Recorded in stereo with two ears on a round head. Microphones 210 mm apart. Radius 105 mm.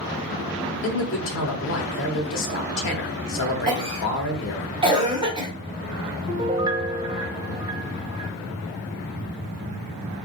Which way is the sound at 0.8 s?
55° left (ahead or behind).